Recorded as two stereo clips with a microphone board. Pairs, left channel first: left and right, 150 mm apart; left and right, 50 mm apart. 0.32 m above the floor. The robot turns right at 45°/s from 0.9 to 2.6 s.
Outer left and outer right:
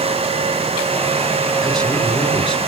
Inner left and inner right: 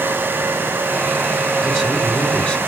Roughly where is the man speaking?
Ahead.